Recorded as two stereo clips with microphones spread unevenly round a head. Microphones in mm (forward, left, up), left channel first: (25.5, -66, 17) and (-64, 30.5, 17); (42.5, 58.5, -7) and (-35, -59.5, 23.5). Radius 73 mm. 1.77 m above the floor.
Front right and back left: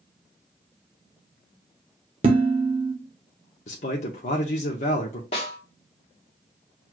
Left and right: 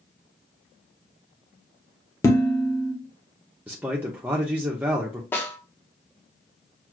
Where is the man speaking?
60° right, 0.6 m.